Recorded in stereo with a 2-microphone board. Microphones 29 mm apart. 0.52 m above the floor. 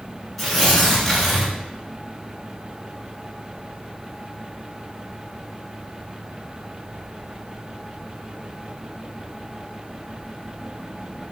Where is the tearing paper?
10° left (ahead or behind), 1.6 m.